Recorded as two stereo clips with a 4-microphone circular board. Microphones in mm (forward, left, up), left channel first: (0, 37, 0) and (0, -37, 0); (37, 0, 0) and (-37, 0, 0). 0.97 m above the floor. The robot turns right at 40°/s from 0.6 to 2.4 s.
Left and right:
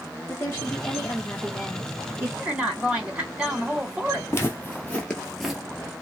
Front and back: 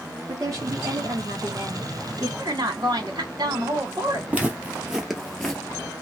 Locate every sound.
0.3 s a woman speaking: 145° left, 1.1 m; by 2.3 s 150° right, 1.1 m
2.4 s a woman speaking: 160° right, 1.8 m
4.3 s footsteps: 120° left, 1.2 m; by 5.6 s 20° right, 0.9 m